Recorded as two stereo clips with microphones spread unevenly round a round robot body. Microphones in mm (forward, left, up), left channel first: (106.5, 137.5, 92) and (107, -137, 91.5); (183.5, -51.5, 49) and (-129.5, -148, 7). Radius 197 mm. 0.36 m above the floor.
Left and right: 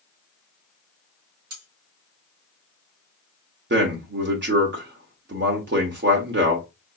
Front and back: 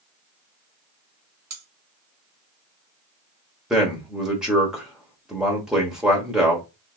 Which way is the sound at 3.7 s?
85° right.